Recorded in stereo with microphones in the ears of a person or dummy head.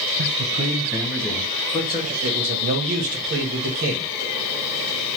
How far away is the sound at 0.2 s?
About 0.6 m.